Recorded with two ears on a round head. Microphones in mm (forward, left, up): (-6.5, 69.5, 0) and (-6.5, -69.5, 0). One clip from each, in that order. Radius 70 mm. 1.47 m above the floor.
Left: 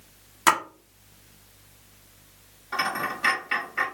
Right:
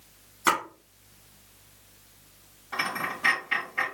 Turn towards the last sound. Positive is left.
turn(degrees=35)  # may be behind; listen again after turning